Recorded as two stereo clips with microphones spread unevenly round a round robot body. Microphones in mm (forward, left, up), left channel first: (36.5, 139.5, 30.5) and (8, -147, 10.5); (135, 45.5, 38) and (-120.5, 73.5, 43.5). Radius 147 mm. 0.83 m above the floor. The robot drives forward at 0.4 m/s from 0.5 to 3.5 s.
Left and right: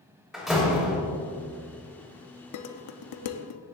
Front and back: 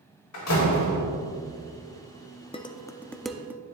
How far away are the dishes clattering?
About 0.8 m.